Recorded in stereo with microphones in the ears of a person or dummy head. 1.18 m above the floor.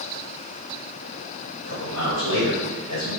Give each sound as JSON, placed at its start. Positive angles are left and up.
{"t": 1.6, "sound": "a man speaking", "side_deg": 70, "distance_m": 1.1}